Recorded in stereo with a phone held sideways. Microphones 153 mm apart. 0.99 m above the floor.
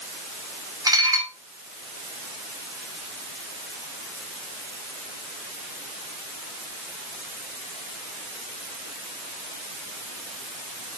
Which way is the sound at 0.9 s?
25° right (ahead or behind).